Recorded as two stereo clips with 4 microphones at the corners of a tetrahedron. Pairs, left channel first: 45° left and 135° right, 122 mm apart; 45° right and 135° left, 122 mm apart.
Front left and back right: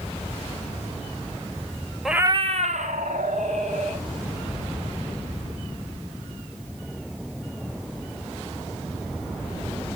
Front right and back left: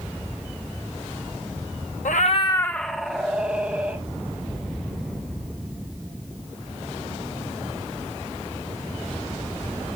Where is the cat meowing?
45° right, 0.5 m; by 4.0 s 150° right, 2.5 m.